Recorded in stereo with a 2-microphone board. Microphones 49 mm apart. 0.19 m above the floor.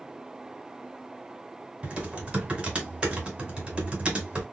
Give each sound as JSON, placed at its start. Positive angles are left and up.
{"t": 1.8, "sound": "typing on a keyboard", "side_deg": -25, "distance_m": 1.5}